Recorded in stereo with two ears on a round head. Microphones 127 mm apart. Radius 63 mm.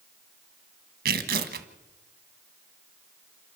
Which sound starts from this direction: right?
Tearing paper, at 1.1 s.